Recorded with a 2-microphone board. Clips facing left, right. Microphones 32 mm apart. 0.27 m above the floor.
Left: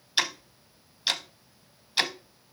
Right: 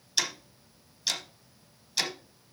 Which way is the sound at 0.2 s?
35° left (ahead or behind).